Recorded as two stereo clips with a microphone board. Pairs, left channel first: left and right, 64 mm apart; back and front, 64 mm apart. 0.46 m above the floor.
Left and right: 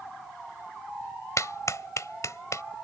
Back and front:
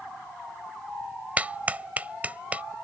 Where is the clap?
65° left.